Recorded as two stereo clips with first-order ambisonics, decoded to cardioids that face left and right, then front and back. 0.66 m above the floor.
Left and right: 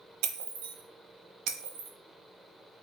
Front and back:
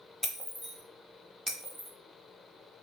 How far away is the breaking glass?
About 0.7 m.